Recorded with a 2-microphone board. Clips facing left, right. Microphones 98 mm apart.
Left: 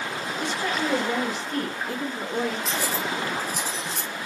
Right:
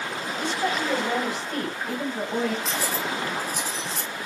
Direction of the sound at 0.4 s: 80° right.